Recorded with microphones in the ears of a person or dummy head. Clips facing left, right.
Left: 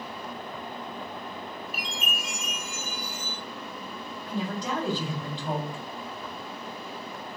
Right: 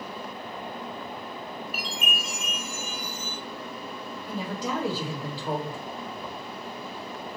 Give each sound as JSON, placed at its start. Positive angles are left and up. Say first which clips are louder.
{"t": 1.7, "sound": "a chime", "louder": "right 2 dB", "side_deg": -75, "distance_m": 1.8}
{"t": 4.3, "sound": "a woman speaking", "louder": "even", "side_deg": -5, "distance_m": 2.5}